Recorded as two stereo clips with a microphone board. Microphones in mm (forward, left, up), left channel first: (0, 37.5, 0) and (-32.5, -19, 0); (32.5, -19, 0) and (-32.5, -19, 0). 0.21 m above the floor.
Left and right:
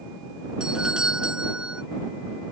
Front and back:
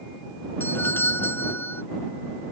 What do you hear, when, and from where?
0.6 s a doorbell: 45° right